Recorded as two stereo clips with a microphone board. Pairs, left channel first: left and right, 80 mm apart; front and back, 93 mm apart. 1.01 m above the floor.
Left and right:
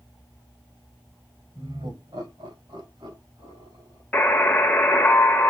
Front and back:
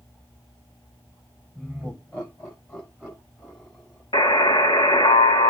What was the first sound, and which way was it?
Laughter, 70° right.